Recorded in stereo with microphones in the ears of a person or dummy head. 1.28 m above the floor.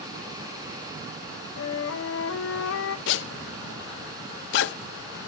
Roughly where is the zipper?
Left.